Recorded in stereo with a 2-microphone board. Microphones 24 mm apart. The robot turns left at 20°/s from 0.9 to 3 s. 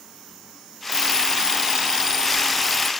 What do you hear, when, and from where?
0.9 s an alarm clock: 130° right, 0.9 m; by 2.9 s 170° right, 0.9 m